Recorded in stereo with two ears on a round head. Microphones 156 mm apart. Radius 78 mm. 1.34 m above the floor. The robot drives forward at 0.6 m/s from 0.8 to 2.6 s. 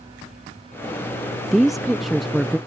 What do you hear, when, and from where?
1.5 s a woman speaking: centre (ahead or behind)